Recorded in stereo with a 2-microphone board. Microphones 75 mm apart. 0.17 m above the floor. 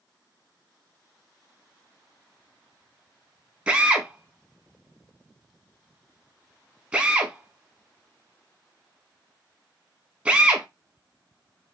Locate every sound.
3.7 s a drill: 15° right (ahead or behind), 0.8 m